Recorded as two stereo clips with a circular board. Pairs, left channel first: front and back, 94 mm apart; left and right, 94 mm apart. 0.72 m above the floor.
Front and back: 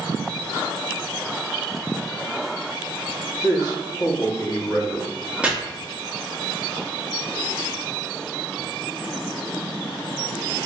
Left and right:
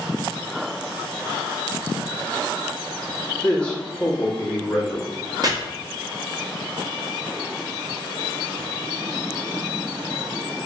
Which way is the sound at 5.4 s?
105° right.